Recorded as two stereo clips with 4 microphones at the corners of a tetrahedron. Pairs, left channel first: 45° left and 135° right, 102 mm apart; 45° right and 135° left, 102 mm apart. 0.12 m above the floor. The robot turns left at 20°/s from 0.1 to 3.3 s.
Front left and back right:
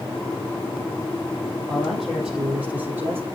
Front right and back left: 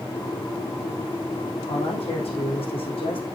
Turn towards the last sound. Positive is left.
turn(degrees=-70)